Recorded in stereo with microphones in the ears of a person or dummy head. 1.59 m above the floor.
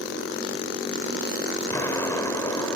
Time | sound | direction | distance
1.7 | an explosion | 15° left (ahead or behind) | ?